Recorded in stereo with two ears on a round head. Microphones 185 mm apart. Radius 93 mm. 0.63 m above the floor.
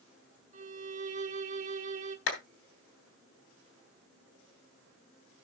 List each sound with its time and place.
0.5 s a violin: 35° right (ahead or behind), 1.5 m
2.3 s a clap: 60° left (ahead or behind), 3 m